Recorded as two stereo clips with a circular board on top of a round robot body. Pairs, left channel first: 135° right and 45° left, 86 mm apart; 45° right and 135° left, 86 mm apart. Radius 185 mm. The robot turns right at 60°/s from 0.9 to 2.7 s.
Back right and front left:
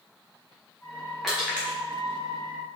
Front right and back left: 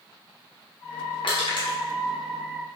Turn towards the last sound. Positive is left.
turn(degrees=40)